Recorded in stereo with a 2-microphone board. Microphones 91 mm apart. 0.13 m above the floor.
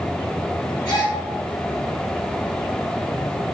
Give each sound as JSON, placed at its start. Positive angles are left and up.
{"t": 0.8, "sound": "a gasp", "side_deg": 50, "distance_m": 2.0}